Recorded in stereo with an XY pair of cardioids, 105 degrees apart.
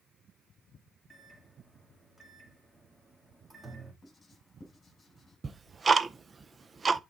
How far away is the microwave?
About 2.5 m.